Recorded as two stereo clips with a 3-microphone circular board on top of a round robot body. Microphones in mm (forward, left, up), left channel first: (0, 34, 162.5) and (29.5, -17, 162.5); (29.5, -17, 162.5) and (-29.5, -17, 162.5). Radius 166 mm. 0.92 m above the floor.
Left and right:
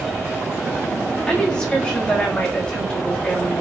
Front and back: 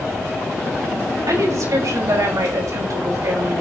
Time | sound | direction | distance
1.3 | a woman speaking | 170° right | 6.5 m